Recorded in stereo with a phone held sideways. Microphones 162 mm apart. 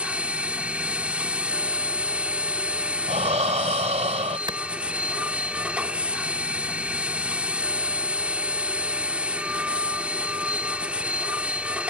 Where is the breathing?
50° right (ahead or behind).